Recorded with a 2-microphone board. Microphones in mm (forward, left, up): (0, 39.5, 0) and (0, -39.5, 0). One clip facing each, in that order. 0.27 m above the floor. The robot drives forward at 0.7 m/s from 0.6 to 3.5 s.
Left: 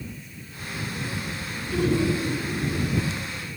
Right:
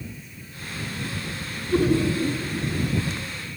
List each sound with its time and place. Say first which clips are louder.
1.7 s laughter: right 2 dB; 45° right (ahead or behind), 3.5 m; by 2.4 s 50° right (ahead or behind), 3 m